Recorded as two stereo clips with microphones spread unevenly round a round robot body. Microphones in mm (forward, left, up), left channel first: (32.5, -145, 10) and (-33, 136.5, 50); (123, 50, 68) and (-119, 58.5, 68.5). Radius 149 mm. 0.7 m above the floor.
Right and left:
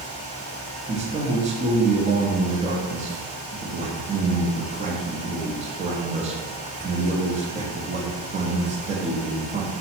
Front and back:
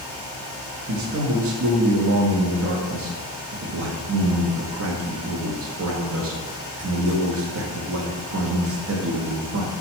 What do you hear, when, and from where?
0.9 s a man speaking: 175° left, 0.8 m